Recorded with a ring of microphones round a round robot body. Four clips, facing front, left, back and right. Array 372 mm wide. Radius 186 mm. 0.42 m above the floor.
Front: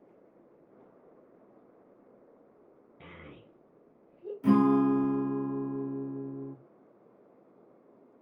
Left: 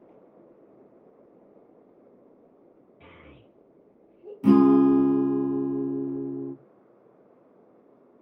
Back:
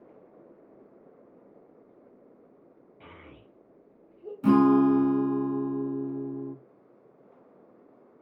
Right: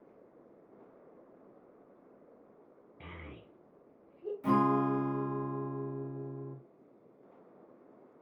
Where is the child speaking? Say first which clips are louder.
Right 2 dB, even; 55° right, 2.0 m.